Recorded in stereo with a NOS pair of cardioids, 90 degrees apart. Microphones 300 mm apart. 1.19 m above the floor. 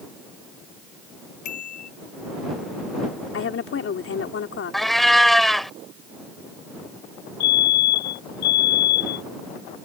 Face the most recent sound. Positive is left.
turn(degrees=65)